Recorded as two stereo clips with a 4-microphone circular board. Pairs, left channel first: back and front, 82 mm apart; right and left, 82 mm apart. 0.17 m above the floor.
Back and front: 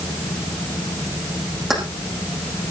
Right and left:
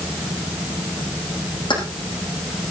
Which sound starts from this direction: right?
Keys jangling, at 1.7 s.